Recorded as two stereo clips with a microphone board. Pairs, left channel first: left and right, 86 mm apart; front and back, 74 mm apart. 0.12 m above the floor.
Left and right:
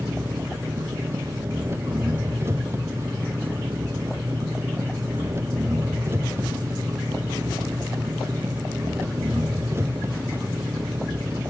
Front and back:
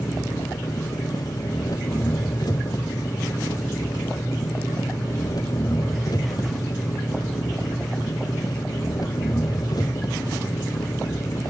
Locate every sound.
0.0 s an engine running: 30° right